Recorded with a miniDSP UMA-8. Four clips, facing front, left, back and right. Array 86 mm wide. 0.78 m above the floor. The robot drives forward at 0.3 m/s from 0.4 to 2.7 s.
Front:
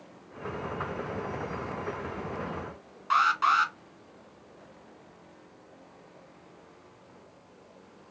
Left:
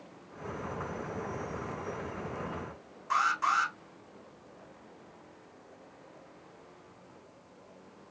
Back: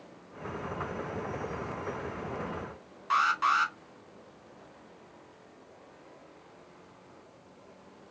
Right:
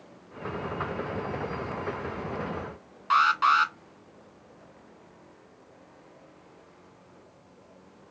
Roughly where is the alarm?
Right.